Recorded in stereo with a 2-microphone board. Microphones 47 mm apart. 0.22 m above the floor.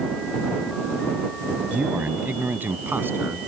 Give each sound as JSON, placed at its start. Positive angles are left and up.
{"t": 1.7, "sound": "a man speaking", "side_deg": -30}